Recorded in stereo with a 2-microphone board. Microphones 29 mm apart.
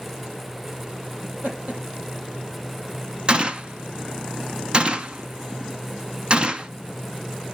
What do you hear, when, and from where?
1.2 s laughter: 40° right (ahead or behind), 7.5 m
3.3 s a gunshot: 35° right (ahead or behind), 0.8 m